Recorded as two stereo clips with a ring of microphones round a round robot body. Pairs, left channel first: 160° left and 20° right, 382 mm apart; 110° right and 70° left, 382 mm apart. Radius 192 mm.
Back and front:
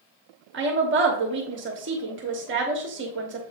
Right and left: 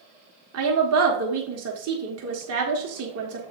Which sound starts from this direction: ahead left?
A woman speaking, at 0.5 s.